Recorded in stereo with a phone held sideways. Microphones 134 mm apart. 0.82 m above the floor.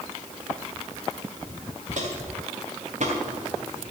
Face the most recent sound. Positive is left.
turn(degrees=-55)  # may be behind; listen again after turning